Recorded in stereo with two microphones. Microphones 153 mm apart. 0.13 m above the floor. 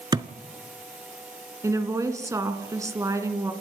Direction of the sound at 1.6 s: 20° right (ahead or behind).